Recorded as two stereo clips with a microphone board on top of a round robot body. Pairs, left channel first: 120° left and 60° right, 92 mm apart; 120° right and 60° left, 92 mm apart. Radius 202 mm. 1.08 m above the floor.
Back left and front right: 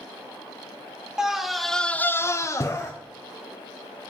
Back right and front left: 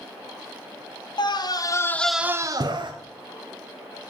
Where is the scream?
145° right, 1.3 m; by 2.9 s 65° left, 1.1 m.